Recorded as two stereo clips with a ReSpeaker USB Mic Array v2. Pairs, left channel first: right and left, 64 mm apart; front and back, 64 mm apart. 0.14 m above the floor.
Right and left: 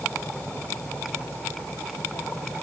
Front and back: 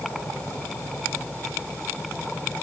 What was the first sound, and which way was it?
Only background noise.